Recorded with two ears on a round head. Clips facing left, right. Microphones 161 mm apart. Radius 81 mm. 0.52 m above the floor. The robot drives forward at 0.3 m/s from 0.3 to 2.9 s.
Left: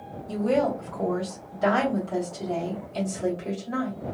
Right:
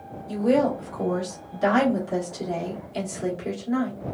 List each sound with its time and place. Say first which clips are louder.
0.3 s a woman speaking: right 3 dB; 15° right (ahead or behind), 1.1 m; by 4.0 s 10° right (ahead or behind), 1.2 m